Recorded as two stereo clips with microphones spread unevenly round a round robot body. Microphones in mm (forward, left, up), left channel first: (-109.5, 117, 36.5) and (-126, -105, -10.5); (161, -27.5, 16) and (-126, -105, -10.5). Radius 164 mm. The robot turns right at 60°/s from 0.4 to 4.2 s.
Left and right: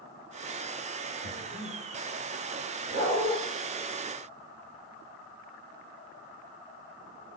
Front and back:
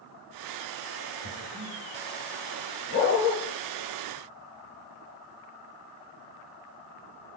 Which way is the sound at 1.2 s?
115° left.